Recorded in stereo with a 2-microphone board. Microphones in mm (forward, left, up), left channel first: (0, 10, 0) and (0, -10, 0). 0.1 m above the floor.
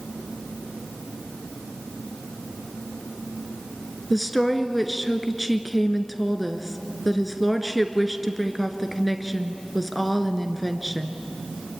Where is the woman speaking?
Centre (ahead or behind), 1.5 m.